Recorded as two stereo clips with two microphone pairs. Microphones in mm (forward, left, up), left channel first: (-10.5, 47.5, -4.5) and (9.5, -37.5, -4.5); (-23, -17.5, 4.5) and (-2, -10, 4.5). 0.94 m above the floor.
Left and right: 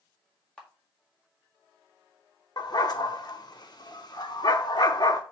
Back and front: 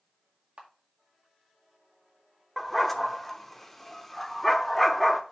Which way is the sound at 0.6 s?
25° left.